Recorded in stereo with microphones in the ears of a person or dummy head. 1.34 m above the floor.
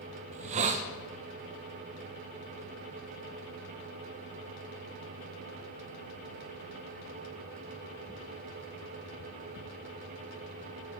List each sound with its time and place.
0.3 s a hiss: 40° right (ahead or behind), 0.5 m